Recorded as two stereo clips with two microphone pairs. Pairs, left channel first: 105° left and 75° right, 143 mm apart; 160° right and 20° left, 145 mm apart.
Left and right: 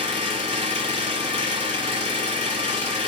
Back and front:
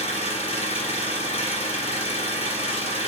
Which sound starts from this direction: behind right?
An engine running, at 0.0 s.